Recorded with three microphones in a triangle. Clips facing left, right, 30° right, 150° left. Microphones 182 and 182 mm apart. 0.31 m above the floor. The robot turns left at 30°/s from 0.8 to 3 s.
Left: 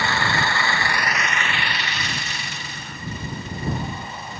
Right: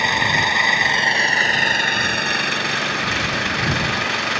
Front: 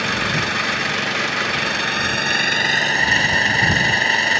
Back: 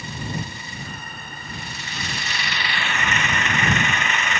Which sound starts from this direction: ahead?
An engine running, at 0.0 s.